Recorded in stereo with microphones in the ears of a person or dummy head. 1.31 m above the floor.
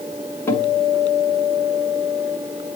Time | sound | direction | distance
0.5 | a guitar | 15° left (ahead or behind) | 1.9 m